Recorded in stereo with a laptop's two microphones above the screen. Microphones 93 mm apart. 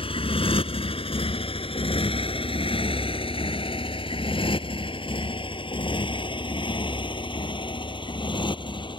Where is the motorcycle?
80° left; by 9.0 s 60° left (ahead or behind).